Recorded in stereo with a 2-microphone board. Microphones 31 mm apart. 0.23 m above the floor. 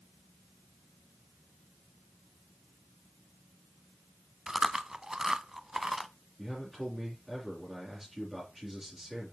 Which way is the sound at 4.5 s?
20° right (ahead or behind).